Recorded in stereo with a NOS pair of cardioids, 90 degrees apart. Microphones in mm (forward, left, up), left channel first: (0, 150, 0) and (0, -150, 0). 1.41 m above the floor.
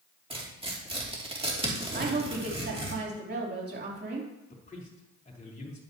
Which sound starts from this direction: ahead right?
A woman speaking, at 1.9 s.